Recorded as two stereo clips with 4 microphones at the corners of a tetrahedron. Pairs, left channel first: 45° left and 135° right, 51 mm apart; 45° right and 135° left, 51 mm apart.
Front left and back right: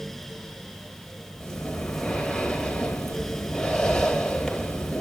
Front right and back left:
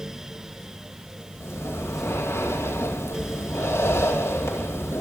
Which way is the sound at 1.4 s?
35° right.